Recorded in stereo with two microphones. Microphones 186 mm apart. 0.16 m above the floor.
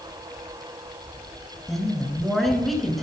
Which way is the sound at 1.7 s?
Centre (ahead or behind).